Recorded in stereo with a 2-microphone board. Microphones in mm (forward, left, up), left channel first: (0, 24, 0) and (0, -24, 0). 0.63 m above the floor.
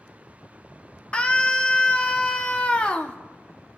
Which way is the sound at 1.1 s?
25° left (ahead or behind).